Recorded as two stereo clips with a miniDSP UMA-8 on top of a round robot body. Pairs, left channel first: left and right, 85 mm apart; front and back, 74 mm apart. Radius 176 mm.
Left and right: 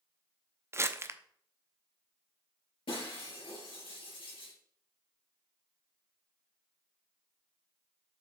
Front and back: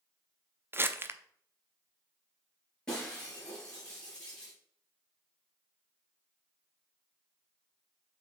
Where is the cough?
No cough in this recording.